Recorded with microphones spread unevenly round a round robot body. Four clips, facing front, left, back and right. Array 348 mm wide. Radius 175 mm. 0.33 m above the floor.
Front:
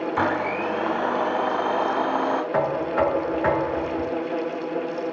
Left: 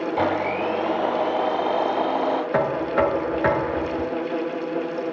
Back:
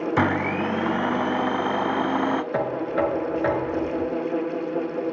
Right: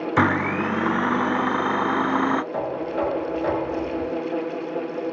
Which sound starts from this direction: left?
Knocking, at 2.5 s.